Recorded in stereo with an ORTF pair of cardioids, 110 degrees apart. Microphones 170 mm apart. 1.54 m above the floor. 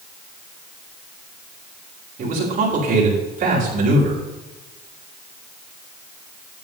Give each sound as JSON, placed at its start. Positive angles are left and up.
{"t": 2.2, "sound": "a man speaking", "azimuth_deg": -50, "distance_m": 6.5}